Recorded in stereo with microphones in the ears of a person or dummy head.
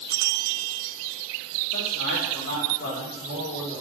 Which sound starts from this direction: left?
A man speaking, at 1.7 s.